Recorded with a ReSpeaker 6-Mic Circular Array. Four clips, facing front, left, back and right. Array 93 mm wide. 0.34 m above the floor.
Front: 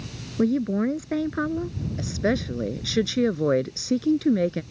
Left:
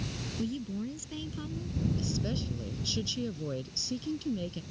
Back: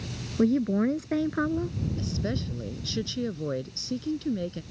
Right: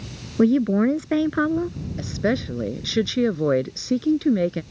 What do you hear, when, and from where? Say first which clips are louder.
0.4 s a woman speaking: right 19 dB, front 1 dB; 85° right
2.0 s a woman speaking: right 11 dB, front 10 dB; 55° right